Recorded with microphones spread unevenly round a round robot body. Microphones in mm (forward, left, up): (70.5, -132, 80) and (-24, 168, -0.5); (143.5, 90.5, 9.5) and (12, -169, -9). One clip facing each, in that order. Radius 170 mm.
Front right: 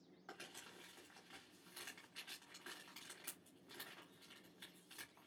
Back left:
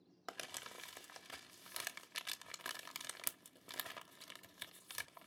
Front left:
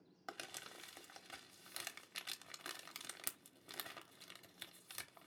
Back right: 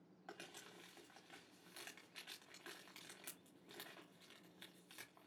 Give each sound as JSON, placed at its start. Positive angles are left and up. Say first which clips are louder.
{"t": 0.3, "sound": "crumpling", "louder": "back left 5 dB, front left 3 dB", "azimuth_deg": 110, "distance_m": 0.9}